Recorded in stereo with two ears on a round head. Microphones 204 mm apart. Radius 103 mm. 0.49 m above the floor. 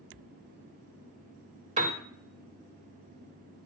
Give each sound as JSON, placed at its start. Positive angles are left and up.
{"t": 1.8, "sound": "a piano", "side_deg": -25, "distance_m": 1.5}